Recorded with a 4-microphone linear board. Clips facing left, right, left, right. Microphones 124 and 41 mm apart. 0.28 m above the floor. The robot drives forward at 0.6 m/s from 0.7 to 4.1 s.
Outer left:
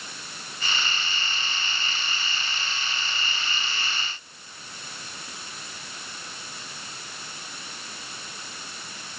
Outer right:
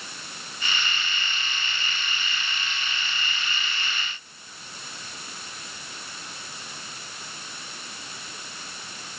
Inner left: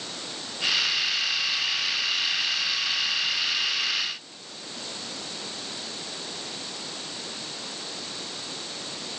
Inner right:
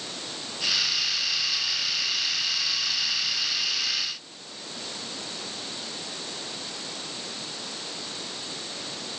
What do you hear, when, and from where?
Only background noise.